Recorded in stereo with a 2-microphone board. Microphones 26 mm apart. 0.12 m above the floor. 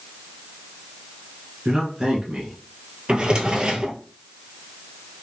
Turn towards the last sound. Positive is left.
turn(degrees=-35)  # may be behind; listen again after turning